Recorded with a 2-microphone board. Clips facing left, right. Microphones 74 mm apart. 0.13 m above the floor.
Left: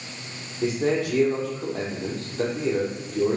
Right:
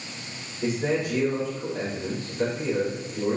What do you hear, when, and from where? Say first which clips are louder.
0.6 s a man speaking: left 2 dB; 75° left (ahead or behind), 5 m